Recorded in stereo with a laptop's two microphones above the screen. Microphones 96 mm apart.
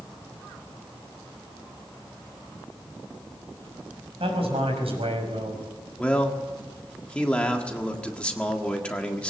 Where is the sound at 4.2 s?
85° right, 6 m; by 5.6 s 75° right (ahead or behind), 5 m.